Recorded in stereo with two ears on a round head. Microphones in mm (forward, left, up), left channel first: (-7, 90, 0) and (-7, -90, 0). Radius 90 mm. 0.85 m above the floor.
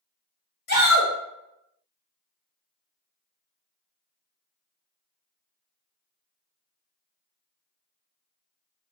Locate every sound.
0.7 s a shout: 55° left (ahead or behind), 1.2 m